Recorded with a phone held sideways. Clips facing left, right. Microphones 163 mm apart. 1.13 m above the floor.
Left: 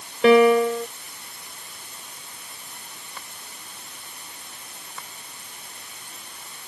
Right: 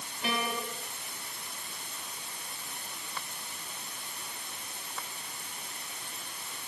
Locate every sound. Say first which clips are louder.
0.2 s a piano: left 20 dB; 85° left